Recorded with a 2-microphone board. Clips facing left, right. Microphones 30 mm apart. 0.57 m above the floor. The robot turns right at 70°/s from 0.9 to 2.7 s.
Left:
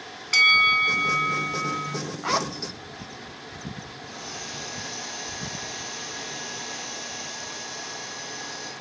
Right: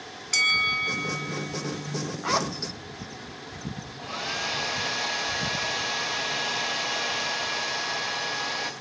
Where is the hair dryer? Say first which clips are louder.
Right 10 dB; 65° right (ahead or behind), 2.0 m.